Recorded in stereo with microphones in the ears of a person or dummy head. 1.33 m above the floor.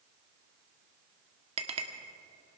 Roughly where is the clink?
Right.